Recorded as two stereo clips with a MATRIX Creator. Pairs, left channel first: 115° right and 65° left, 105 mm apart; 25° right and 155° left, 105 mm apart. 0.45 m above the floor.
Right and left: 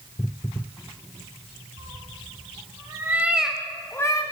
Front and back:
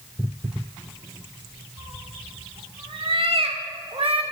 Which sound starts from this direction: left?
A cat meowing, at 1.8 s.